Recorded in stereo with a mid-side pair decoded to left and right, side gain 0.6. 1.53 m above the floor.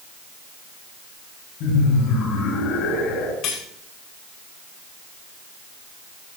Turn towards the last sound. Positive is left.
turn(degrees=70)